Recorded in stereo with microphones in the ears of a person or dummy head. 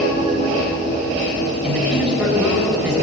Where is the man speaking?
5° right (ahead or behind), 6 m.